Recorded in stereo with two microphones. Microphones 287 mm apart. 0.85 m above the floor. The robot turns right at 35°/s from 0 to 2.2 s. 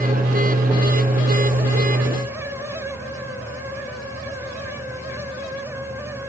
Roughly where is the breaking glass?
No breaking glass in this recording.